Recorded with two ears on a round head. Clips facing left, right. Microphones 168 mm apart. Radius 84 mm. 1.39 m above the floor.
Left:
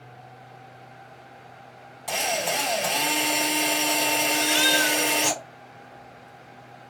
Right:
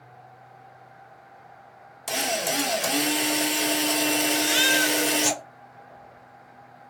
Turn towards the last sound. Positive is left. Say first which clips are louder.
# even
turn(degrees=-25)  # may be behind; listen again after turning